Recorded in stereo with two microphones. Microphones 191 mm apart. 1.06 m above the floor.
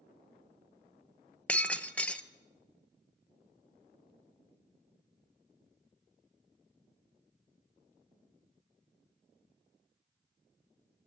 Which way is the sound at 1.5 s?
5° left (ahead or behind).